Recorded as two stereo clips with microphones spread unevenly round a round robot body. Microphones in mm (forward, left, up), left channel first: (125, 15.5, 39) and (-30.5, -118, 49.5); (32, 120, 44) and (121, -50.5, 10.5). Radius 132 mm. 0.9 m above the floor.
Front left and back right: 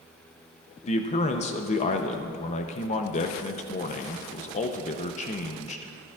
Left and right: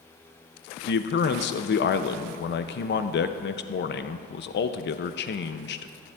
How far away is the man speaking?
About 0.6 m.